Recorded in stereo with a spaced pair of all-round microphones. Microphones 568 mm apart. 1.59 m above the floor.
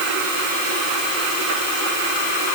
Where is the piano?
I don't hear a piano.